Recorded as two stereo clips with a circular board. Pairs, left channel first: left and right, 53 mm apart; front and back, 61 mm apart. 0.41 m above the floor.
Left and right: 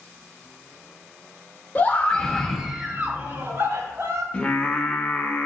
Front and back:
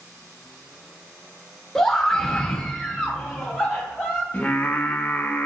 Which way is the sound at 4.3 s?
45° left.